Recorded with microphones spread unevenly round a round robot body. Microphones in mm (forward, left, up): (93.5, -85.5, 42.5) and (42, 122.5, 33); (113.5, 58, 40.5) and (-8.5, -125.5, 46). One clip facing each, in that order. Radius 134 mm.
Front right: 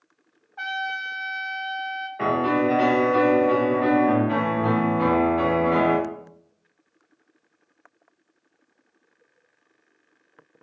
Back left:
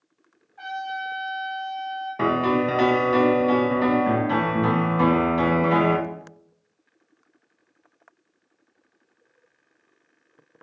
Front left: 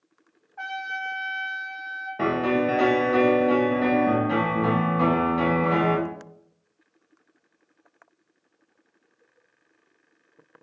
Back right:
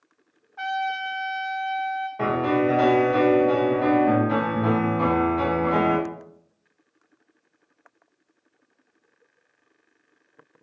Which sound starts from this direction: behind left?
A piano, at 2.2 s.